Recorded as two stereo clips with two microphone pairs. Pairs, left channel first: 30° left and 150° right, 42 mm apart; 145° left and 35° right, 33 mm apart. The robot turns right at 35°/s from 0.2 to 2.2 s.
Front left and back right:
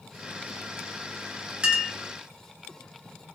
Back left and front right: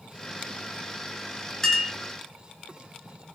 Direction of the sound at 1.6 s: 145° right.